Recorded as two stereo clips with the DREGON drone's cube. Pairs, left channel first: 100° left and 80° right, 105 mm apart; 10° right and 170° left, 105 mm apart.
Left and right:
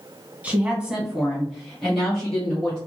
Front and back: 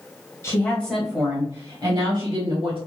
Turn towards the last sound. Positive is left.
turn(degrees=180)